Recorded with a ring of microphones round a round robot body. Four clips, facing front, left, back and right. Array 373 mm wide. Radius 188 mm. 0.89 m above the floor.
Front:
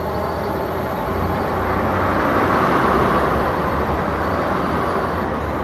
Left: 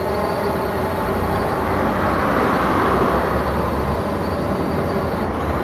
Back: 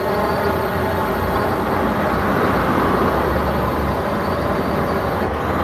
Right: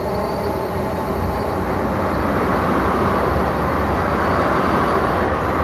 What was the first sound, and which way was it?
A drone, 160° left.